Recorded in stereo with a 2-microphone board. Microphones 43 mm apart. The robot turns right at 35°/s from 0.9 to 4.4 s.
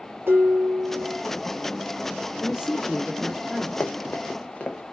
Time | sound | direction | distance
0.3 | dishes clattering | 60° right (ahead or behind) | 1.6 m
2.4 | a man speaking | 15° right (ahead or behind) | 1.6 m
3.8 | running footsteps | 75° left (ahead or behind) | 0.7 m